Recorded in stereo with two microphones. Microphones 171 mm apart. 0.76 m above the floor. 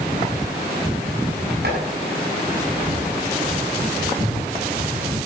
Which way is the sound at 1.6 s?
70° right (ahead or behind).